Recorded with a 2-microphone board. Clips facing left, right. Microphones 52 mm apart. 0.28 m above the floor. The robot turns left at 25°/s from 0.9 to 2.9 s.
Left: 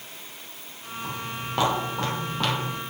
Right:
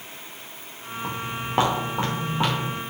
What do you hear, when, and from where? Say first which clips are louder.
1.0 s footsteps: right 3 dB; 30° right (ahead or behind), 2.5 m; by 2.8 s 10° right (ahead or behind), 4 m